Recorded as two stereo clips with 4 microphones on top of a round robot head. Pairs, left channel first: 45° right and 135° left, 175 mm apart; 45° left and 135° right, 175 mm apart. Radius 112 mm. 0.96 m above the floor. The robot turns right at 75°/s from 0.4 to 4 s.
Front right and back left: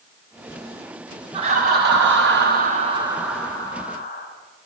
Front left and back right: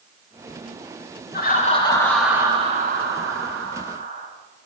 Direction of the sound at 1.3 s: 70° left.